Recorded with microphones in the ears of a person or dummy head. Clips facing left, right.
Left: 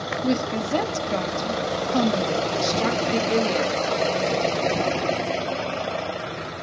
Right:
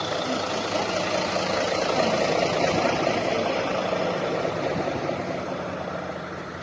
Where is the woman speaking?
60° left (ahead or behind), 1.7 m.